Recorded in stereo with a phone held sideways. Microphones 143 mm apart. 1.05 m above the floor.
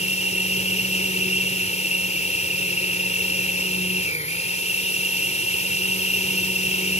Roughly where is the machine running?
Left.